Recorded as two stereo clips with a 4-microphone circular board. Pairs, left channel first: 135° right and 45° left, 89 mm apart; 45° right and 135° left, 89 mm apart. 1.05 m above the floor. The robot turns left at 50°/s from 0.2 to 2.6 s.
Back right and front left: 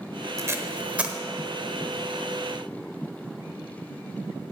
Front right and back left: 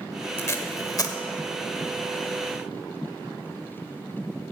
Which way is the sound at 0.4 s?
5° left.